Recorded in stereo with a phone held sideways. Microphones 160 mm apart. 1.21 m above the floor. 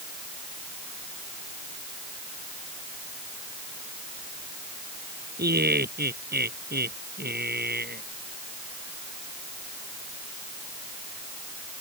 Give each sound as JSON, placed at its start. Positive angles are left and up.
{"t": 5.4, "sound": "laughter", "side_deg": -90}